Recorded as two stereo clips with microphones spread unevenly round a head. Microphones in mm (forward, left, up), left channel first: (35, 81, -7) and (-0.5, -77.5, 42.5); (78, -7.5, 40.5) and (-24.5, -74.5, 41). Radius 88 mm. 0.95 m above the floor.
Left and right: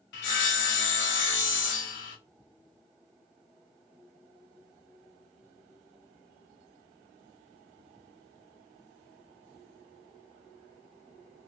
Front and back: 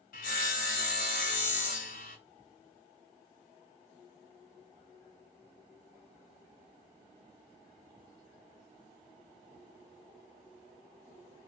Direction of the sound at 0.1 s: 70° left.